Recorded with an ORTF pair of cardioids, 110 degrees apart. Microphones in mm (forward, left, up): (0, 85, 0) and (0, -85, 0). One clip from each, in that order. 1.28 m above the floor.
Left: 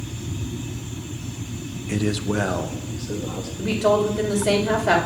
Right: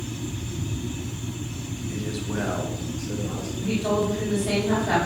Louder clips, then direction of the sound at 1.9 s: Left 8 dB; 65° left.